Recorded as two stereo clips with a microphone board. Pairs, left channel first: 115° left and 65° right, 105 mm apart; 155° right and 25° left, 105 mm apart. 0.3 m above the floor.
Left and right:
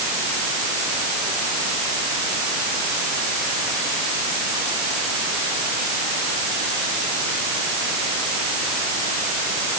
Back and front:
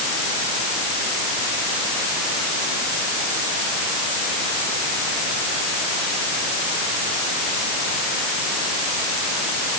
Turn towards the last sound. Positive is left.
No sound to turn to.